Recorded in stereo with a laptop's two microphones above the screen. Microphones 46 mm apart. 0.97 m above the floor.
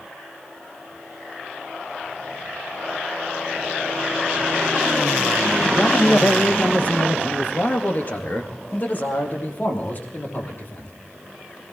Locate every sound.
5.7 s a man speaking: 15° left (ahead or behind), 0.9 m; by 10.9 s 45° left (ahead or behind), 3.5 m